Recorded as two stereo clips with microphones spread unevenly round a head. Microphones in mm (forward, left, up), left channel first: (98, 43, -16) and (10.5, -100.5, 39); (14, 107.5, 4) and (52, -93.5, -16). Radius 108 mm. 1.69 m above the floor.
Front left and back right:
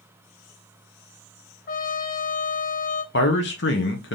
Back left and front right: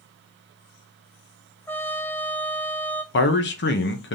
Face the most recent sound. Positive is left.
turn(degrees=105)